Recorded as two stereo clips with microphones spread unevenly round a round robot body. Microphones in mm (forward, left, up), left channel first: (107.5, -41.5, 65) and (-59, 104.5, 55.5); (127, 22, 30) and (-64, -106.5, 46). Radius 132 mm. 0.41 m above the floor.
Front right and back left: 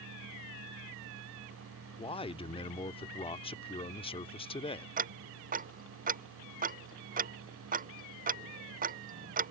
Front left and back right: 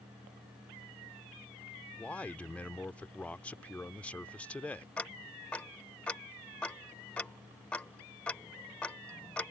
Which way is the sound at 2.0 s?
30° right.